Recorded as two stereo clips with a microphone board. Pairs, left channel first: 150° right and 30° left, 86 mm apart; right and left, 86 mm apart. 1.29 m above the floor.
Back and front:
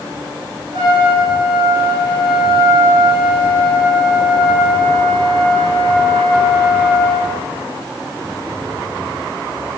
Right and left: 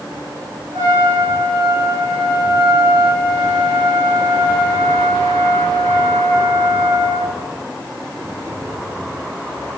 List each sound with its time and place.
0.7 s a trumpet: 55° left, 1.7 m